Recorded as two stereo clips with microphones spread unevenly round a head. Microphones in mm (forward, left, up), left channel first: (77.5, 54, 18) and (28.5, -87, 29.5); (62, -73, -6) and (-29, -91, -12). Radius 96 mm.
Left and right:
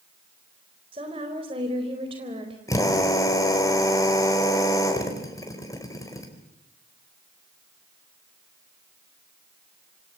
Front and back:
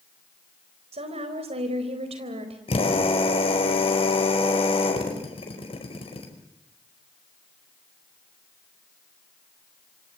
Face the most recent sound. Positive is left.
turn(degrees=5)